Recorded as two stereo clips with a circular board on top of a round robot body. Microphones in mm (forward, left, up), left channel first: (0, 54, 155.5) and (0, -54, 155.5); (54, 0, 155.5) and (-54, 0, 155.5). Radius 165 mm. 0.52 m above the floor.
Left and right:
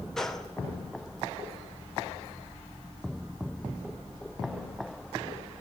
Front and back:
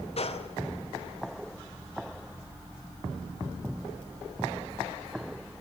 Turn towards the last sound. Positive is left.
turn(degrees=5)